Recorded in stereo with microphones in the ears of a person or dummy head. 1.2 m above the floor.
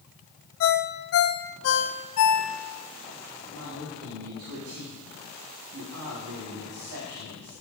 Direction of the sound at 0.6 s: 80° left.